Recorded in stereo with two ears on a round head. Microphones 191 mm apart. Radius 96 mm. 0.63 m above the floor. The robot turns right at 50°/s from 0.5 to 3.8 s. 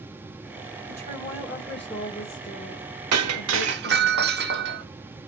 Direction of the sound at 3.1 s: 85° right.